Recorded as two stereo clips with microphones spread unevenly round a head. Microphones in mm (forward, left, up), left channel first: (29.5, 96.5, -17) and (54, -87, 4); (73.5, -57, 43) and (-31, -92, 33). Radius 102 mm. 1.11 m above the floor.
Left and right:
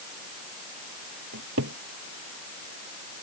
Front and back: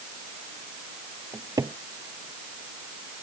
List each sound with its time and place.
1.3 s a cupboard door: 100° right